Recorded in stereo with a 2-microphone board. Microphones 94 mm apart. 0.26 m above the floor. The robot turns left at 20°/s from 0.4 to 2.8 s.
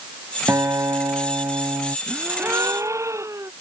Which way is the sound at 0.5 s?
35° right (ahead or behind).